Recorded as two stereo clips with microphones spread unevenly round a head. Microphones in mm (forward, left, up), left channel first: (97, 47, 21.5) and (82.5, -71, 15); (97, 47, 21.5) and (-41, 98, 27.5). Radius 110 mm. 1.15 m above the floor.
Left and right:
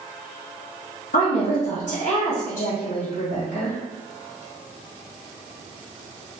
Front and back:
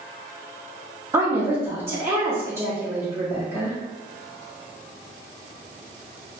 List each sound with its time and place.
1.1 s a woman speaking: 90° left, 0.9 m